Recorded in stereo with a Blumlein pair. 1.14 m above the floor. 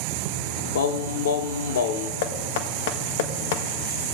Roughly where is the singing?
Ahead left.